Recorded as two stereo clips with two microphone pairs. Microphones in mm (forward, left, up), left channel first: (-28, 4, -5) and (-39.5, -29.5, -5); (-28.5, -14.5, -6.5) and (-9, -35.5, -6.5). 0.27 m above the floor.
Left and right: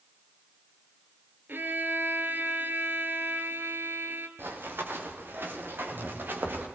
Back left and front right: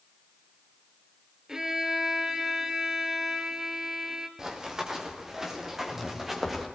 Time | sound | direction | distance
1.5 | a violin | 115° right | 2.5 m
4.4 | running footsteps | 115° right | 6 m